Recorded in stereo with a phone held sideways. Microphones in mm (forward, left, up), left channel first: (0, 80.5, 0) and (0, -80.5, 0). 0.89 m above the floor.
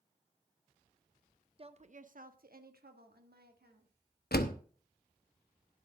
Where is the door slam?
75° left (ahead or behind), 0.9 m.